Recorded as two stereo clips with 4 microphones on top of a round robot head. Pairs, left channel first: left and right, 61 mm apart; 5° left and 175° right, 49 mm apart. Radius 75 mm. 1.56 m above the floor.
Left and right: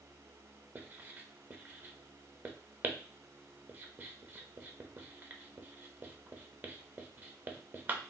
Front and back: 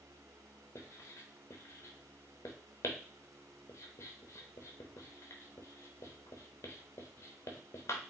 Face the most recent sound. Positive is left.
turn(degrees=-30)